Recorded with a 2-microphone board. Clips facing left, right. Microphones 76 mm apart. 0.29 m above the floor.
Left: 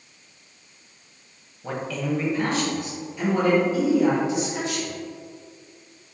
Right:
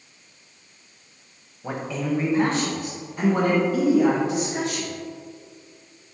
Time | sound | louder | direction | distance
1.6 | a man speaking | right 1 dB | 15° right (ahead or behind) | 1.4 m